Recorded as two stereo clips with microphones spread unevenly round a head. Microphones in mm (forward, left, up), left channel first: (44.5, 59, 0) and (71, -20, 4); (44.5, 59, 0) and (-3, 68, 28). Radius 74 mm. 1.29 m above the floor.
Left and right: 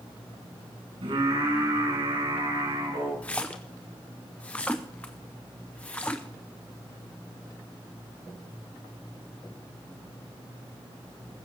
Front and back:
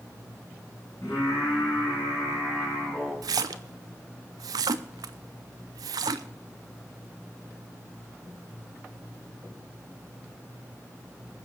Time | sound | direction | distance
1.0 | singing | 60° right | 9.5 m
3.2 | a splash | 175° right | 0.6 m